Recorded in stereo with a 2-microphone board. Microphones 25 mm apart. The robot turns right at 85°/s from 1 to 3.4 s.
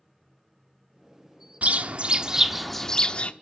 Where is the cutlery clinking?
I don't hear cutlery clinking.